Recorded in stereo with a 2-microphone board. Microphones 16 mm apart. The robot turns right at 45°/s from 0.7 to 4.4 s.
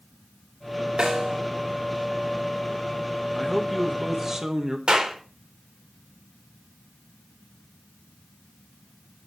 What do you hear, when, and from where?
1.0 s a snare drum: 50° right (ahead or behind), 5 m; by 1.4 s 70° right (ahead or behind), 5 m
3.4 s a man speaking: 165° left, 1.5 m; by 4.8 s 145° right, 1.5 m
4.9 s a clap: 65° right (ahead or behind), 3.5 m